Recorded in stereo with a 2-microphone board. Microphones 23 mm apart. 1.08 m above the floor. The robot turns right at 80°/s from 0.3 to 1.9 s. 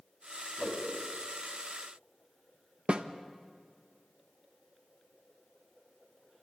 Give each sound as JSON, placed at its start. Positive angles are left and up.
{"t": 0.6, "sound": "a whoosh", "side_deg": 85, "distance_m": 4.0}
{"t": 2.9, "sound": "a snare drum", "side_deg": -60, "distance_m": 1.0}